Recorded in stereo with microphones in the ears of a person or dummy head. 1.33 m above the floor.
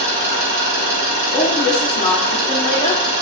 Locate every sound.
0.0 s an engine running: 80° right, 1.8 m
1.3 s a woman speaking: 20° left (ahead or behind), 0.7 m